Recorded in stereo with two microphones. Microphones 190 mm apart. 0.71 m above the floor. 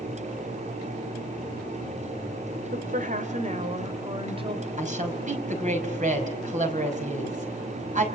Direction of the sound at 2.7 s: 45° right (ahead or behind).